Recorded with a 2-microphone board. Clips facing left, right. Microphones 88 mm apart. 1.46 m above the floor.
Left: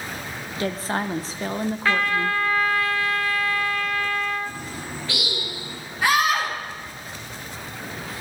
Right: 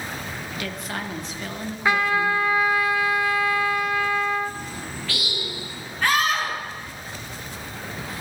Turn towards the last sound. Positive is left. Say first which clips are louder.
# left 2 dB
turn(degrees=10)  # may be behind; listen again after turning